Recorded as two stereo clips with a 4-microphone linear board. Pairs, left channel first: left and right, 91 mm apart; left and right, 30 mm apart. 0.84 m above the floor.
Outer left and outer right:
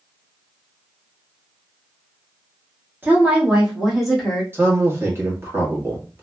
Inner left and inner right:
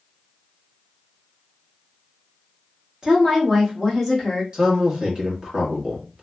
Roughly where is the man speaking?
Right.